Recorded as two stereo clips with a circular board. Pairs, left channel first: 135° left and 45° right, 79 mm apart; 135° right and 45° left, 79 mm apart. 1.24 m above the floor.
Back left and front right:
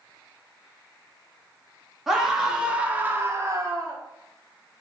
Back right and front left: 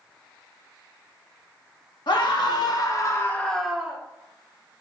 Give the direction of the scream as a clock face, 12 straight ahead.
4 o'clock.